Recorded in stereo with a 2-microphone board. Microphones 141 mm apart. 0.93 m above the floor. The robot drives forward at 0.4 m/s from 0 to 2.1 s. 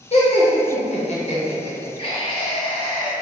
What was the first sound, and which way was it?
Laughter, 45° left (ahead or behind).